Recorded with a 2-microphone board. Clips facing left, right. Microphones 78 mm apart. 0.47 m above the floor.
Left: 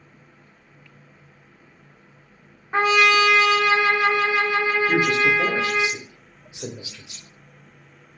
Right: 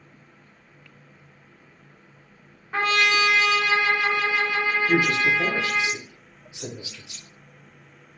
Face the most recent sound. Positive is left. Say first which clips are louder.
# left 1 dB
turn(degrees=20)  # may be behind; listen again after turning